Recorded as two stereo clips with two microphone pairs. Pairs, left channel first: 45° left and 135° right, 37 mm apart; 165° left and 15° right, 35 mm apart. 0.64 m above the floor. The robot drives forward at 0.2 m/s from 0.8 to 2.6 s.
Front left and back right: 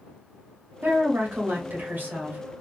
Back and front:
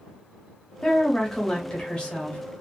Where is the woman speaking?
120° right, 0.9 m; by 2.4 s 140° right, 1.1 m.